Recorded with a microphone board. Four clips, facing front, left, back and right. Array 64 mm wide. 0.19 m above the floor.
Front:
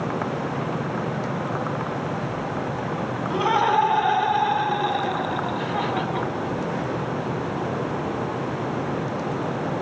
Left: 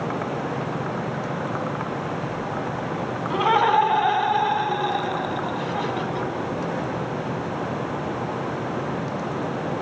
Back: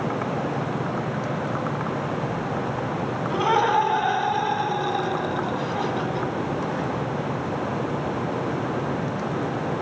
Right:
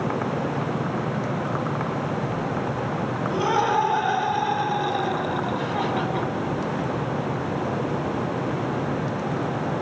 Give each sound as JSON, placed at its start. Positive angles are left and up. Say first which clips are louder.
{"t": 3.3, "sound": "laughter", "louder": "left 4 dB, even", "azimuth_deg": 90, "distance_m": 1.8}